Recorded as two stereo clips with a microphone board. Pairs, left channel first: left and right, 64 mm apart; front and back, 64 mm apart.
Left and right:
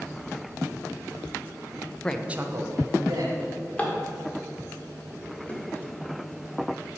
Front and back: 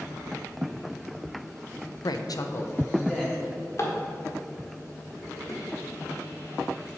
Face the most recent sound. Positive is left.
turn(degrees=30)